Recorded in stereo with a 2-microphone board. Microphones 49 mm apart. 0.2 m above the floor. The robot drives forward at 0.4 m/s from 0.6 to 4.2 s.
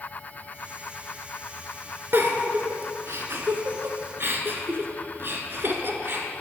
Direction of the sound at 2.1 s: 50° right (ahead or behind).